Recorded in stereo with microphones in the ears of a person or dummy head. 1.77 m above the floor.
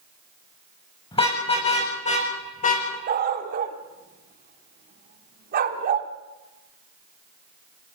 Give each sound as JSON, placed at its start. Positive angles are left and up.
{"t": 1.1, "sound": "a car horn", "side_deg": 25, "distance_m": 6.0}
{"t": 3.1, "sound": "a dog barking", "side_deg": -45, "distance_m": 1.9}